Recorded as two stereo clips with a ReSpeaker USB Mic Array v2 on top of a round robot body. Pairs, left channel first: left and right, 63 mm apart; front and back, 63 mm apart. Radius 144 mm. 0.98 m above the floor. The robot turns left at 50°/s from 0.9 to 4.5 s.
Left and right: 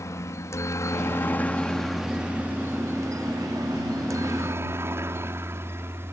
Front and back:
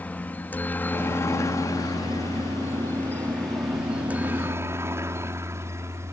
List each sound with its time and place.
0.0 s a helicopter: 60° left; by 6.1 s 140° right